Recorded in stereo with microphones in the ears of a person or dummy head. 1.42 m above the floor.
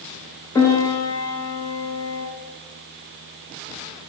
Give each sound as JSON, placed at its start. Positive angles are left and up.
{"t": 0.6, "sound": "a piano", "side_deg": 15, "distance_m": 0.6}